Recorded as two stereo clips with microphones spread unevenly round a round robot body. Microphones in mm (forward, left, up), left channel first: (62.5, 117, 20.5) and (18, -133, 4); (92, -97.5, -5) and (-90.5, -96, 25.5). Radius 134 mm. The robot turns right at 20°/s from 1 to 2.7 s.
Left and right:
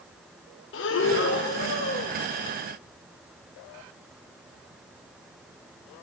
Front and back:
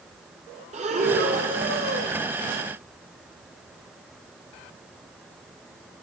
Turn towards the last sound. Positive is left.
turn(degrees=150)